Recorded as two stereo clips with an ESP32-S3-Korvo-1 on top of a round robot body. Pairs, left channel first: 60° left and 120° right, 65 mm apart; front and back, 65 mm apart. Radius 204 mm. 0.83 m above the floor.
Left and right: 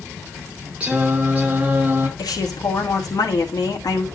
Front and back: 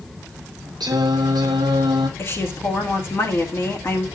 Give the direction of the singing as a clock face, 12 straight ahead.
6 o'clock.